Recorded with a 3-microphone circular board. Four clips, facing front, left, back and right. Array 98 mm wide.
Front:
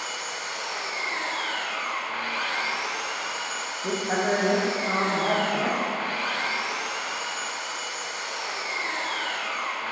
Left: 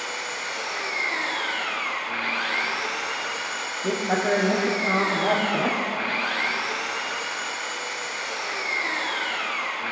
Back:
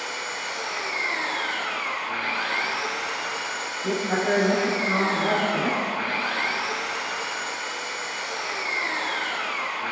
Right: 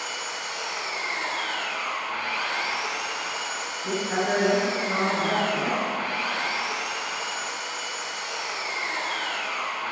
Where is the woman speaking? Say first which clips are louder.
Left 3 dB, back 1 dB; 75° left, 3 m.